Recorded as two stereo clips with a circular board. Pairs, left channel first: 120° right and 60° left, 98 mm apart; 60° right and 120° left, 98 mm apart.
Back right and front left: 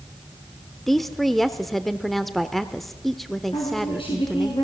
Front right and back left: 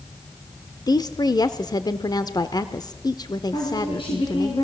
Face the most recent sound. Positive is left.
turn(degrees=-90)